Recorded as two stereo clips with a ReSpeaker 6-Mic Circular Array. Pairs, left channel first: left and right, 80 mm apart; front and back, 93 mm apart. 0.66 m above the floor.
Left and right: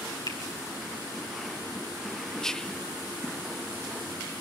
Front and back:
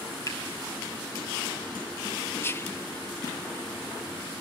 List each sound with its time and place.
0.3 s a finger snap: 55° left, 5 m
2.4 s whispering: 15° left, 0.7 m